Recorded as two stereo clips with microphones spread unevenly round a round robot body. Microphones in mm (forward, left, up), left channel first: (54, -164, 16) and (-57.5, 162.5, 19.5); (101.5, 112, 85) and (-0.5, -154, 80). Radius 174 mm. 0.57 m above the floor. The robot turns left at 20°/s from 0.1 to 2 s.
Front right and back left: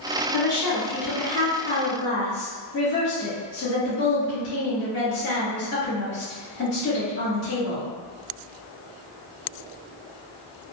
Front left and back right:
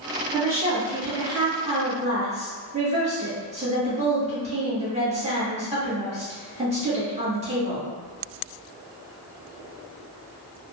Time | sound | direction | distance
0.3 | a woman speaking | 35° right | 1.2 m